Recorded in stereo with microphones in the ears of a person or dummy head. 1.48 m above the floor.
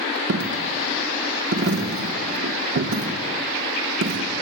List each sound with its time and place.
0.3 s a dropped coin: 60° right (ahead or behind), 1.6 m